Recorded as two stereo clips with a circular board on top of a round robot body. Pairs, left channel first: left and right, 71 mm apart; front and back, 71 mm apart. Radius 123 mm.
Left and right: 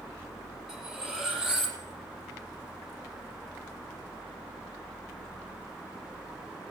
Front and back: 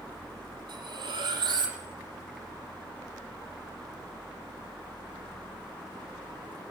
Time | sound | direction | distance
0.7 | cutlery clinking | 170° right | 9.5 m